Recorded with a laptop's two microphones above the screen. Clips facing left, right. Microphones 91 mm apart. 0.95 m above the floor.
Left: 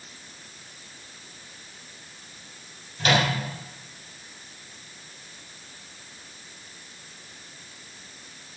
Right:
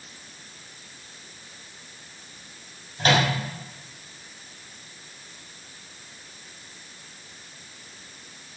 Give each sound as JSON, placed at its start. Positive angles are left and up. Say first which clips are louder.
{"t": 3.0, "sound": "a microwave", "louder": "right 1 dB", "side_deg": -40, "distance_m": 4.5}